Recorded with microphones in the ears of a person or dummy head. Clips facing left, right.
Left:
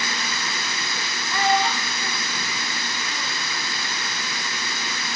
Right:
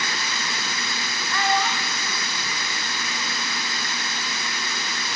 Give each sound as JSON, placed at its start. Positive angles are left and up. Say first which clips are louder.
{"t": 1.3, "sound": "a child speaking", "louder": "left 3 dB", "side_deg": 15, "distance_m": 0.7}